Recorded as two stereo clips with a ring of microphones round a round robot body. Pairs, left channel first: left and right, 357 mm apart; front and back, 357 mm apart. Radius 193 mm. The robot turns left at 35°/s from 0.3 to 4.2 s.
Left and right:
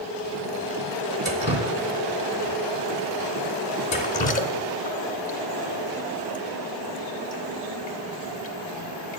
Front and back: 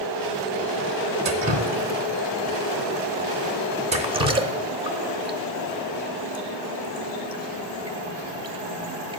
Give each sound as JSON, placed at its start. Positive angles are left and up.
{"t": 1.2, "sound": "dripping", "azimuth_deg": -135, "distance_m": 0.6}